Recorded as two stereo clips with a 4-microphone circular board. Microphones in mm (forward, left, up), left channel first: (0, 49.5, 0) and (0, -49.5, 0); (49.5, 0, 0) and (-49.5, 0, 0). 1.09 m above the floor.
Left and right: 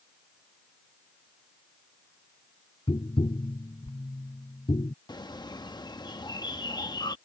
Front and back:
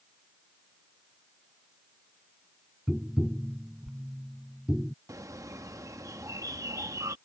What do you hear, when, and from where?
2.9 s tapping: 100° left
5.1 s a bird: 130° left